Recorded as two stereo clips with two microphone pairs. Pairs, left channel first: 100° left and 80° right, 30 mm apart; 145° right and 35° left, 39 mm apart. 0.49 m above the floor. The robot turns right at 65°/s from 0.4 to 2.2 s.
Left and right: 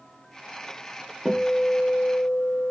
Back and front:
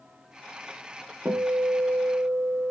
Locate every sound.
1.2 s a guitar: 5° left, 0.5 m; by 2.7 s 65° left, 0.5 m